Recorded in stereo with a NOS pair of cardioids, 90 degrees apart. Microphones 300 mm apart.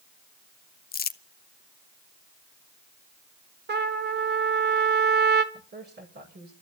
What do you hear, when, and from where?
0.9 s crumpling: 30° left, 0.7 m
3.7 s a trumpet: 35° right, 1.6 m
5.5 s a woman speaking: 40° right, 7 m